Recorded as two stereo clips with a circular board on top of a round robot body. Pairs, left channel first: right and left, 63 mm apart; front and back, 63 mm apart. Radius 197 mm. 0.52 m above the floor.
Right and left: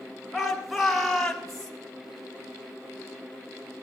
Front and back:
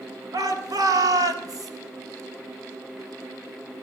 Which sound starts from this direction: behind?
A shout, at 0.3 s.